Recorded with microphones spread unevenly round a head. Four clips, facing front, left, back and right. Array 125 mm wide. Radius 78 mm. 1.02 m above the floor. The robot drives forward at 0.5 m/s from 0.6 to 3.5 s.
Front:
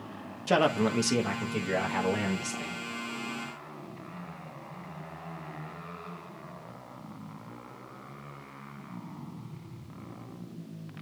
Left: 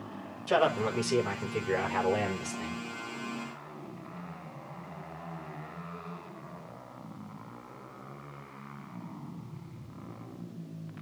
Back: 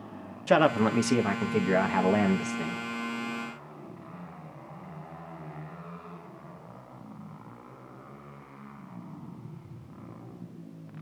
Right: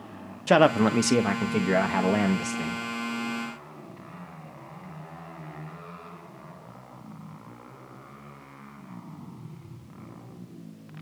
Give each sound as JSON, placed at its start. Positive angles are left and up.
{"t": 0.5, "sound": "a man speaking", "azimuth_deg": -95, "distance_m": 1.2}